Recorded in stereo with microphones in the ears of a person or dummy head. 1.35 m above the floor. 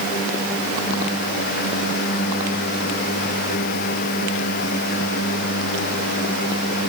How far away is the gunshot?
I don't hear a gunshot.